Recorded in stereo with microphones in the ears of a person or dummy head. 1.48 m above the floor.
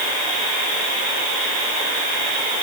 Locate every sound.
Only background noise.